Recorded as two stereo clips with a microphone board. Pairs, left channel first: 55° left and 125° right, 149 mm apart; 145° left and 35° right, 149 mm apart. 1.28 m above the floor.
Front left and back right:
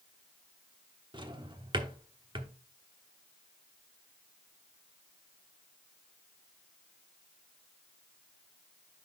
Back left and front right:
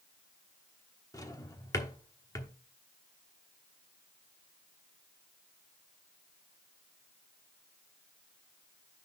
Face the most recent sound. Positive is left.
turn(degrees=-160)